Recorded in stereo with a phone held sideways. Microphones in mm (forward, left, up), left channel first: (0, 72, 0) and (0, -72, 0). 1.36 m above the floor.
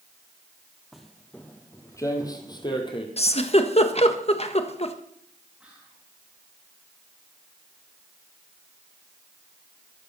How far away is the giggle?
About 1.5 m.